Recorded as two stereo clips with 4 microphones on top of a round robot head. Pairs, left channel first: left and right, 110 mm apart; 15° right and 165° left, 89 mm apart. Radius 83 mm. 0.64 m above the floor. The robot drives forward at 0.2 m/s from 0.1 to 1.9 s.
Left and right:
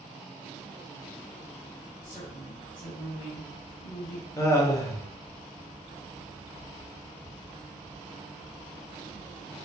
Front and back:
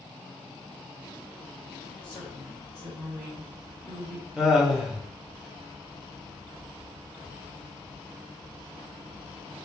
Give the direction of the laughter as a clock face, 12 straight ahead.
9 o'clock.